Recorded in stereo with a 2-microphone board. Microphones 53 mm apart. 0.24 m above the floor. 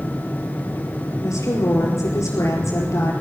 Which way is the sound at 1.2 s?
75° left (ahead or behind).